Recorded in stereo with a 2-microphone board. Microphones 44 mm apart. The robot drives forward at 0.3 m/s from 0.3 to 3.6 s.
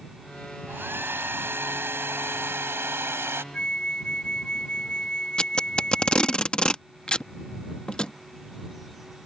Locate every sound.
0.7 s a hair dryer: 60° right (ahead or behind); by 3.4 s 75° right (ahead or behind)
3.5 s a flute: 25° left (ahead or behind)
5.4 s tape being pulled: 20° left (ahead or behind)